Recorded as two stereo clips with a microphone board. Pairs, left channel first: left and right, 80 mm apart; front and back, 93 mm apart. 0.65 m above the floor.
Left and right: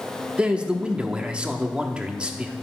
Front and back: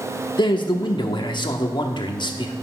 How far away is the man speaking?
About 1.0 m.